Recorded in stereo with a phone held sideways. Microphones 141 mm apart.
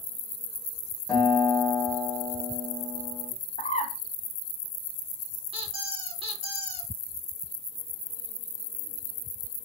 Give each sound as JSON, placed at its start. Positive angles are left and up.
{"t": 1.1, "sound": "a guitar", "side_deg": 20, "distance_m": 1.3}
{"t": 3.6, "sound": "a bird", "side_deg": 50, "distance_m": 0.5}
{"t": 5.5, "sound": "a squeak", "side_deg": -40, "distance_m": 1.3}